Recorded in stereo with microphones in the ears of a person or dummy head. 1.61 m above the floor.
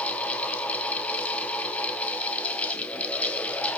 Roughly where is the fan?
Centre.